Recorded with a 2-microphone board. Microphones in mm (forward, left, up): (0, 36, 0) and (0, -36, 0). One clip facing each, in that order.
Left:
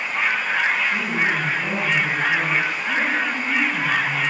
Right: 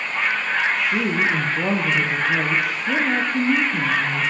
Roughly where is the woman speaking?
Right.